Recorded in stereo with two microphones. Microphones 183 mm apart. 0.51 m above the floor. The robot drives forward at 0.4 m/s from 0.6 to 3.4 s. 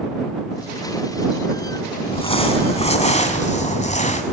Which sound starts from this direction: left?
Crumpling, at 2.1 s.